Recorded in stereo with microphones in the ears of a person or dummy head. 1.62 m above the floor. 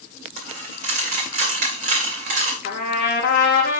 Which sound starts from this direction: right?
A dropped coin, at 0.4 s.